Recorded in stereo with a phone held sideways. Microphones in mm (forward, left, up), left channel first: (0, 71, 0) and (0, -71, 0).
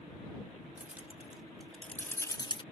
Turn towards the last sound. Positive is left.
turn(degrees=35)  # may be behind; listen again after turning